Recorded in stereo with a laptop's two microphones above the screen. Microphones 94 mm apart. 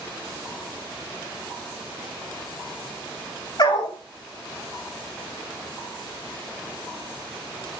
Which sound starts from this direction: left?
A dog barking, at 3.6 s.